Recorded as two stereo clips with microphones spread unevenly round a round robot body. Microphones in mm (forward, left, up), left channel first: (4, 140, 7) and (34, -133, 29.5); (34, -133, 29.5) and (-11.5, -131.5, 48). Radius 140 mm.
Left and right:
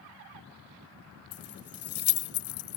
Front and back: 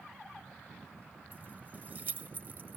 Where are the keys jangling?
105° left.